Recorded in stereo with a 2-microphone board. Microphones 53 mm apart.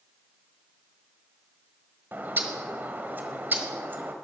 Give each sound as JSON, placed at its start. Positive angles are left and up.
{"t": 2.1, "sound": "a bird", "side_deg": -40, "distance_m": 1.7}